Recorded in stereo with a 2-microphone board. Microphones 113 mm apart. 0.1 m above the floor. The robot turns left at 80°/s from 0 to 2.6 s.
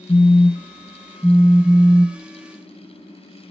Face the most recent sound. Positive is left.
turn(degrees=-135)